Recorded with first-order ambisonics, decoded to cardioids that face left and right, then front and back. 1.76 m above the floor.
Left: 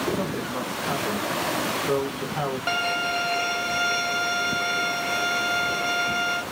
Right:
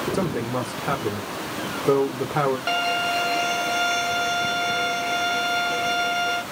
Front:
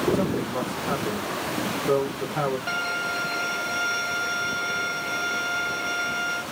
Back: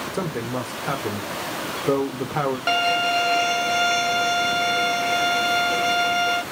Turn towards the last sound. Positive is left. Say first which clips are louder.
# right 2 dB, back 7 dB
turn(degrees=-175)